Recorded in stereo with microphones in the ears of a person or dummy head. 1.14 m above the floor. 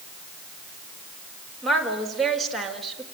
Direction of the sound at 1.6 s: Centre (ahead or behind).